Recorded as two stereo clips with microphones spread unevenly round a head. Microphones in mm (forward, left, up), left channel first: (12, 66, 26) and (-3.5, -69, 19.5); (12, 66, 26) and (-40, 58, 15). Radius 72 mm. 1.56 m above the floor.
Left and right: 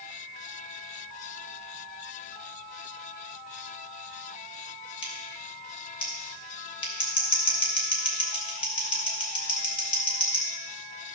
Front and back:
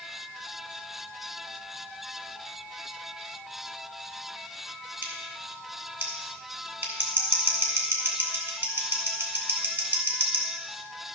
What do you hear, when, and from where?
5.0 s scissors: 135° left, 3 m